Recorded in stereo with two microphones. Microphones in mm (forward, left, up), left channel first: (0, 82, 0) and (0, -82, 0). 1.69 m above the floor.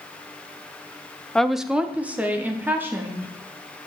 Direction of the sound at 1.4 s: 5° left (ahead or behind).